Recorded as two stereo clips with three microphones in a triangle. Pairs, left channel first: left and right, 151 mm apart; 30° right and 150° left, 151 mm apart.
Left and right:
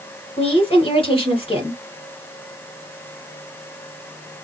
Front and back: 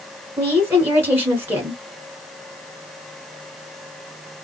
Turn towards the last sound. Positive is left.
turn(degrees=85)